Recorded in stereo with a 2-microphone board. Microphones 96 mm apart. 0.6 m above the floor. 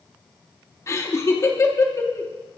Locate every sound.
0.9 s laughter: 30° left (ahead or behind), 0.7 m